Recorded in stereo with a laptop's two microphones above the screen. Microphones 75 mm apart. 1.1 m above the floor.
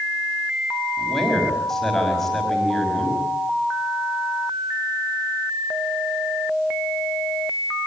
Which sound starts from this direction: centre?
A man speaking, at 1.0 s.